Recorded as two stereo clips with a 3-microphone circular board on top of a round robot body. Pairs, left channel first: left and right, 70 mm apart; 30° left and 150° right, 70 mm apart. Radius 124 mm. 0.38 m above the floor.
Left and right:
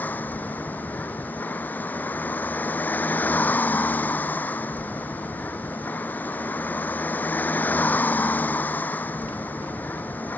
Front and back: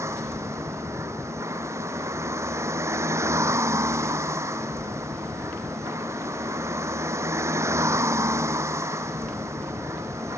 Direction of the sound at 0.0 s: 160° left.